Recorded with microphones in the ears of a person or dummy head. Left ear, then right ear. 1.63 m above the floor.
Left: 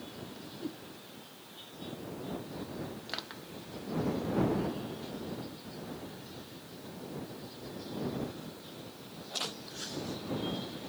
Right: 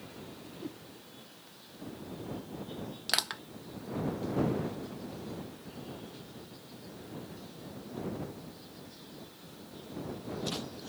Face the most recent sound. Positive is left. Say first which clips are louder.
# right 12 dB
turn(degrees=-40)  # may be behind; listen again after turning